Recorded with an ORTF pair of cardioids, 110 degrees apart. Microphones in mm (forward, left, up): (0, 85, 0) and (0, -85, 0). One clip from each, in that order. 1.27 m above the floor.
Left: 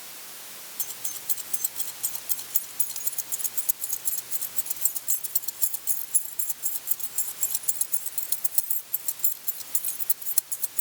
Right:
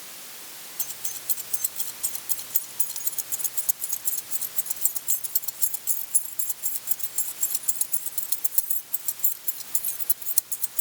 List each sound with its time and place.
0.8 s keys jangling: straight ahead